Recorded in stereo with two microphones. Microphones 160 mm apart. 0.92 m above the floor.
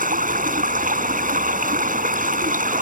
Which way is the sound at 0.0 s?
60° right (ahead or behind).